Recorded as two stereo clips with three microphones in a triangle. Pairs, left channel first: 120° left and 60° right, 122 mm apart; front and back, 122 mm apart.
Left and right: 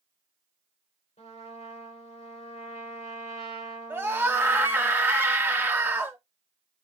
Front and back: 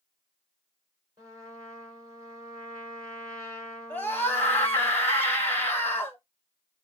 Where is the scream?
40° right, 1.0 m.